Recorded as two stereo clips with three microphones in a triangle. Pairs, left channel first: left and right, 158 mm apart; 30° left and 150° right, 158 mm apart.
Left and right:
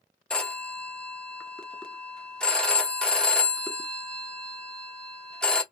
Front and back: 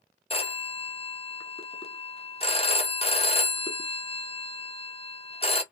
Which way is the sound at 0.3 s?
5° left.